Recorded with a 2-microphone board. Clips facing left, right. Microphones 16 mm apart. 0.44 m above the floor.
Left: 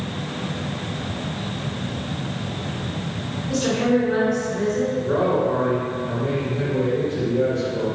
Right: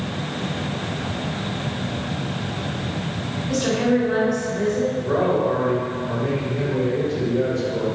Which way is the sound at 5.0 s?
15° right (ahead or behind).